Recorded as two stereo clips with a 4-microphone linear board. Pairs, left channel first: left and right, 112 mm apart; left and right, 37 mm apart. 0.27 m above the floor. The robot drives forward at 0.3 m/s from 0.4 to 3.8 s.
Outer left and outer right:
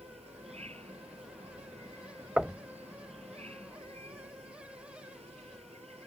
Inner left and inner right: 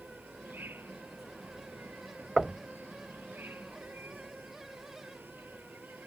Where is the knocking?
10° right (ahead or behind).